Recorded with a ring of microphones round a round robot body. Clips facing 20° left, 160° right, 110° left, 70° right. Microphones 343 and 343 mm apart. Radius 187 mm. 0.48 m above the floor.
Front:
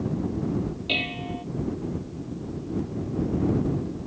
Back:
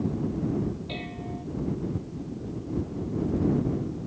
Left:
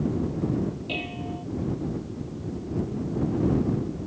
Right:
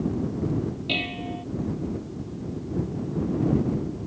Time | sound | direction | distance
0.9 | dishes clattering | 15° right | ?